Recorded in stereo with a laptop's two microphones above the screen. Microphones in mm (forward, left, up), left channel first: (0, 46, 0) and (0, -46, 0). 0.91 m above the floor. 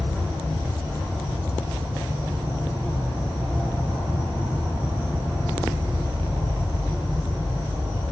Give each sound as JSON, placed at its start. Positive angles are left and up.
{"t": 0.0, "sound": "an insect", "side_deg": -20, "distance_m": 6.0}